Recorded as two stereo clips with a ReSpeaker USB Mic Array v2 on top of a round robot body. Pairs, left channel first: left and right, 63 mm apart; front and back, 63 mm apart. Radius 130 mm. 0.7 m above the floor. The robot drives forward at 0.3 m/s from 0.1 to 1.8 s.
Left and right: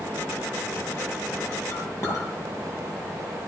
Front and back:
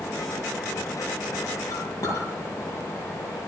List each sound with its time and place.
1.7 s a clink: 45° left, 9.5 m